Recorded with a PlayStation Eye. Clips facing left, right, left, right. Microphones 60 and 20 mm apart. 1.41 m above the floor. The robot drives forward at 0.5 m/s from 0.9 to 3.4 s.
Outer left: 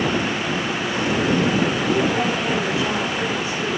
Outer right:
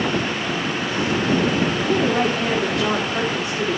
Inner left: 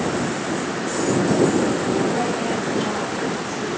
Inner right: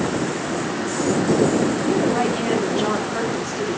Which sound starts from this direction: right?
A woman speaking, at 1.8 s.